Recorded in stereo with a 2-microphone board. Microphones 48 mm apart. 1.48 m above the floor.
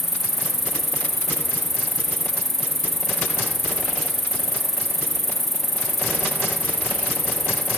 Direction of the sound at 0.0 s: 10° left (ahead or behind).